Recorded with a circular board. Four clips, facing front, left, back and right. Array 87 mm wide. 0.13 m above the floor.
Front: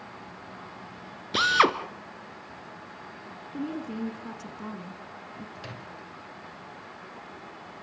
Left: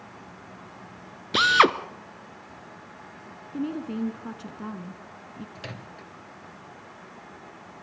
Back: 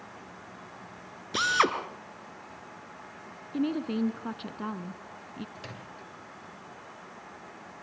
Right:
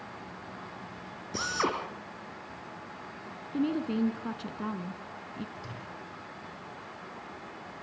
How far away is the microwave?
About 2 m.